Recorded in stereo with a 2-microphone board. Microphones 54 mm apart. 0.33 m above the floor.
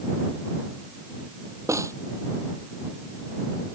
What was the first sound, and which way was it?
A snare drum, 70° right (ahead or behind).